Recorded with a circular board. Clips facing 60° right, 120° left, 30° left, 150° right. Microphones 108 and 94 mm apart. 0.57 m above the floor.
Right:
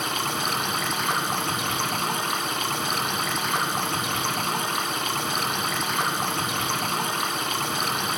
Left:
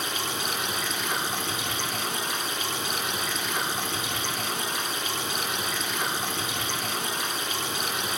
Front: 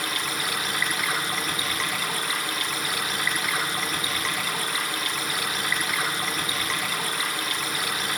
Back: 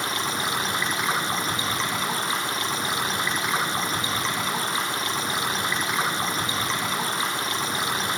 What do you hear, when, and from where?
0.0 s running water: 85° right, 1.0 m